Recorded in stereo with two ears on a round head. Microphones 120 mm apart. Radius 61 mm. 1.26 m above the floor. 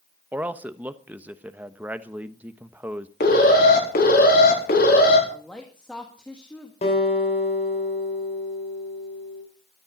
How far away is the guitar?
About 5 m.